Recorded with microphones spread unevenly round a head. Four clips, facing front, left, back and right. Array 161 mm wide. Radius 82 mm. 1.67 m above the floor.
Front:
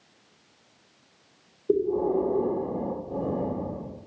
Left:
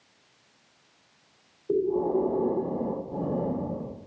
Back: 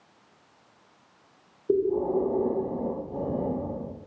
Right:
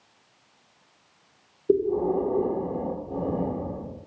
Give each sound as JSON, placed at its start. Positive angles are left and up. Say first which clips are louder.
{"t": 1.7, "sound": "breathing", "louder": "right 2 dB, even", "azimuth_deg": -80, "distance_m": 1.4}